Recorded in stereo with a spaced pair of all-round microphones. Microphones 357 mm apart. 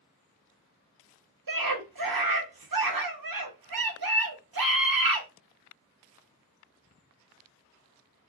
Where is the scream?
80° right, 0.7 m.